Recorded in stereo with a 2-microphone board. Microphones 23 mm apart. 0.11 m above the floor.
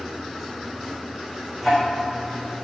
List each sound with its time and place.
1.6 s ticking: 10° right (ahead or behind), 4.5 m